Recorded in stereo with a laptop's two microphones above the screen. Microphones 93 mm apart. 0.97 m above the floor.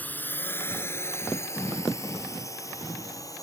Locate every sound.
0.0 s a drone: 20° left (ahead or behind); by 3.4 s 35° left (ahead or behind)